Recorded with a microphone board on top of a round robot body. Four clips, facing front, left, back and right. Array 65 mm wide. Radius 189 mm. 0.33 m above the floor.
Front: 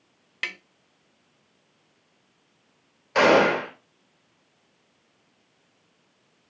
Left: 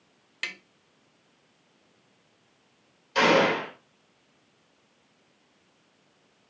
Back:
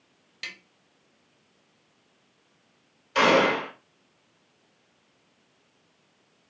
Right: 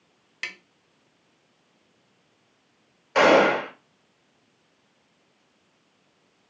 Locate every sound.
0.4 s tapping: 5° right, 0.6 m
3.1 s a gunshot: 45° right, 1.5 m